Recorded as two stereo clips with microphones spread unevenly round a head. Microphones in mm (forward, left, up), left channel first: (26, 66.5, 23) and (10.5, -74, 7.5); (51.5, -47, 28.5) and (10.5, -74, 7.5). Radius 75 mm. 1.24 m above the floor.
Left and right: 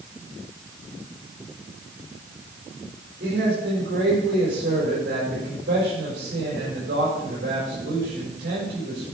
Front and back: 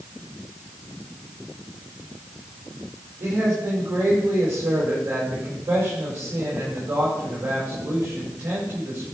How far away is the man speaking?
About 4.5 m.